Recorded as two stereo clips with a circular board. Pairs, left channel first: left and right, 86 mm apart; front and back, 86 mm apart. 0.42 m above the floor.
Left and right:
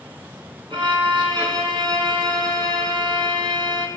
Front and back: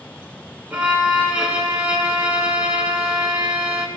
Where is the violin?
105° right, 3 m.